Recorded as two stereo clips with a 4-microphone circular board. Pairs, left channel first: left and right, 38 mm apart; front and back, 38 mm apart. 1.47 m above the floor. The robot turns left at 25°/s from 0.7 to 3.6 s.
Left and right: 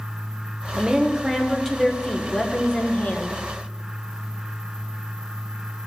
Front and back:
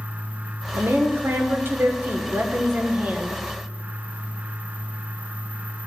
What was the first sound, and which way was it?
A woman speaking, 160° right.